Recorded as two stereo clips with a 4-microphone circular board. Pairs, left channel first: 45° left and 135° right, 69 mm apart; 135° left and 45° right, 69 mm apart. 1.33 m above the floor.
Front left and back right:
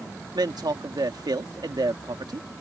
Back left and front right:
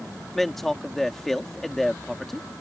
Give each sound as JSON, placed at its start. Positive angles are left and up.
{"t": 0.3, "sound": "a man speaking", "azimuth_deg": -140}